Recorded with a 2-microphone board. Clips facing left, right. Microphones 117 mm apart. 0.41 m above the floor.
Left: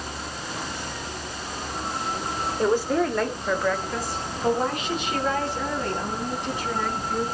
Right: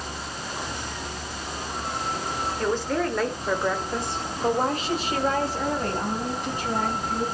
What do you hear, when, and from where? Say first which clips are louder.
2.6 s a woman speaking: left 4 dB; 20° left (ahead or behind), 1.5 m; by 7.2 s 50° right (ahead or behind), 4.5 m